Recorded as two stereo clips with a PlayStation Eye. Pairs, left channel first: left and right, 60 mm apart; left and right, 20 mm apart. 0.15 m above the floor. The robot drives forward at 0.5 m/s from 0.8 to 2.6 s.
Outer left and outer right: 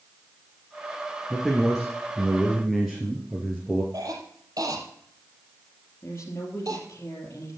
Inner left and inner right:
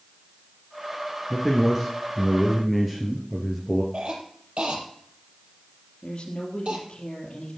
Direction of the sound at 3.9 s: 70° right (ahead or behind).